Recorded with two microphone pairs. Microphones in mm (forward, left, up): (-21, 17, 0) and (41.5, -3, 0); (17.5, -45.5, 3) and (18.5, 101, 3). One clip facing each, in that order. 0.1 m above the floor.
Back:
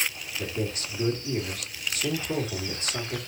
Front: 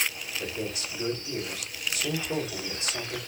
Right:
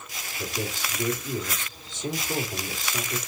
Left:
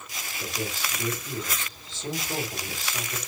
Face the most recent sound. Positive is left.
turn(degrees=-165)